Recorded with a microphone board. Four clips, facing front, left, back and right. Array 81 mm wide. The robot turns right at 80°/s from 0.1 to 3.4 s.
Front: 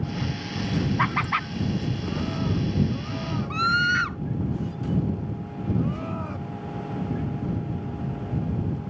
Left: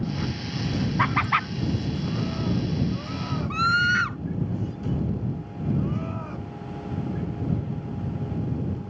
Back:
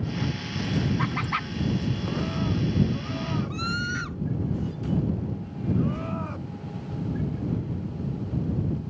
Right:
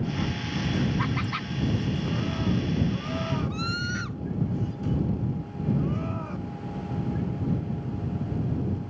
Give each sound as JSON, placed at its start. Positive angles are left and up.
{"t": 1.0, "sound": "laughter", "azimuth_deg": 45}
{"t": 3.5, "sound": "a scream", "azimuth_deg": 55}